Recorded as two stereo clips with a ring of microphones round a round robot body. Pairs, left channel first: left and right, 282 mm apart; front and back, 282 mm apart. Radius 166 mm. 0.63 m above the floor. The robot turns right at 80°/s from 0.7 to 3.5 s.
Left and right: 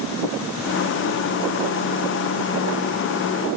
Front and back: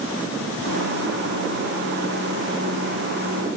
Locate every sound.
Only background noise.